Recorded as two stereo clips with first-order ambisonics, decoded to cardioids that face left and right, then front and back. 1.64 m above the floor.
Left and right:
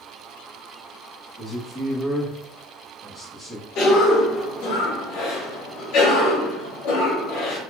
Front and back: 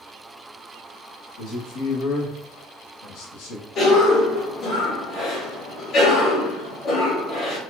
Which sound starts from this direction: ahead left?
A cough, at 3.8 s.